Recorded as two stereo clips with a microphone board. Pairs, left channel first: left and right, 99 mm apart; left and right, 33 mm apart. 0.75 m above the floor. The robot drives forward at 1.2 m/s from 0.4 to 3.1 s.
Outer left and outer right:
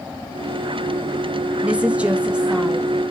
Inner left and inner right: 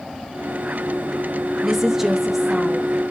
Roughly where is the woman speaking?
Centre.